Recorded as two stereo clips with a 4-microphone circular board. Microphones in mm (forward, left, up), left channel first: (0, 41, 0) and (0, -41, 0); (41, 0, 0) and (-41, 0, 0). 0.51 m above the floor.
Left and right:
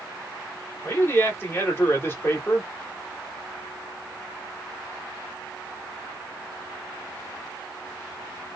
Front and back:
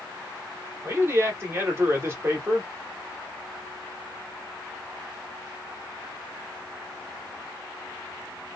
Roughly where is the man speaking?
Behind left.